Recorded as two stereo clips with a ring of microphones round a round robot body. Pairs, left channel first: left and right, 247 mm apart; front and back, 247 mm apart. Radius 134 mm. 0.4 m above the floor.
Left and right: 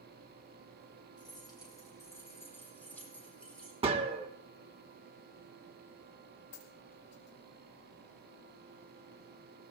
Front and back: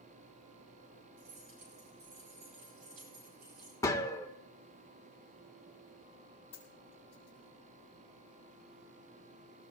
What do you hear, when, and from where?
1.2 s keys jangling: 165° left, 9 m; by 3.7 s 175° left, 10.5 m
3.8 s a gunshot: 60° right, 1.2 m
6.5 s a dropped coin: 70° left, 7 m